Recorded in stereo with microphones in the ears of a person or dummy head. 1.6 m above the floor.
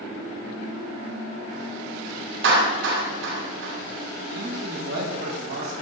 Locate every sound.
2.4 s a clap: 70° right (ahead or behind), 7 m
4.3 s a man speaking: 70° right (ahead or behind), 5.5 m